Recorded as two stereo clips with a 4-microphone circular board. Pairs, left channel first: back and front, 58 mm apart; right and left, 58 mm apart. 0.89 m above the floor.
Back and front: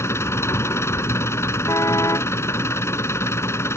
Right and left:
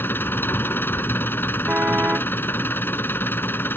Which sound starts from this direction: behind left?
A car horn, at 1.7 s.